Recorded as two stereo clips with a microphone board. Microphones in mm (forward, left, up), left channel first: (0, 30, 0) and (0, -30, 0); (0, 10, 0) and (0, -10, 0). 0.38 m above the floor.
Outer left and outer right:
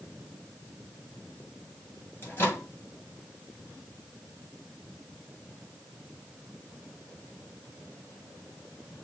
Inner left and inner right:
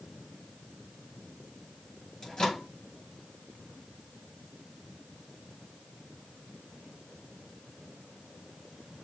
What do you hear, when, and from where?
2.2 s a microwave: 35° left (ahead or behind), 2.5 m